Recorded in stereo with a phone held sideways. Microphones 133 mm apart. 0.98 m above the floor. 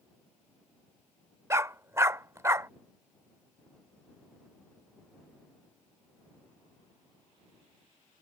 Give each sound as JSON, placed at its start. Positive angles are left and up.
{"t": 1.5, "sound": "a dog barking", "side_deg": -20}